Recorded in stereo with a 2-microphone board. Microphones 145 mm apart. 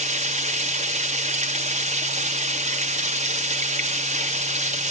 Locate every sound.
0.0 s running water: 55° right (ahead or behind), 2 m